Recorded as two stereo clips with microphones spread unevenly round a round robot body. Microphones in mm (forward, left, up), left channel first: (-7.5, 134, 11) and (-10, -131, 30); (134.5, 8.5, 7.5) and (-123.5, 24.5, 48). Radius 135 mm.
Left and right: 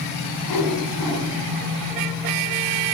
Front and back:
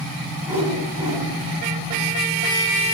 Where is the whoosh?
95° left, 4.5 m.